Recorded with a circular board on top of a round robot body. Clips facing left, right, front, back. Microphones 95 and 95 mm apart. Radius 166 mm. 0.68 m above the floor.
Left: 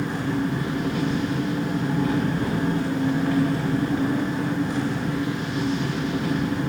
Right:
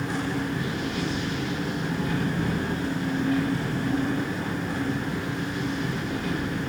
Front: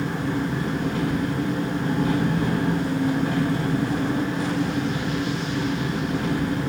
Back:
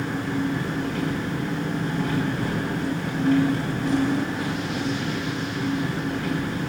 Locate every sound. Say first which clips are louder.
0.0 s an engine running: left 3 dB, front 1 dB; 65° left, 2.5 m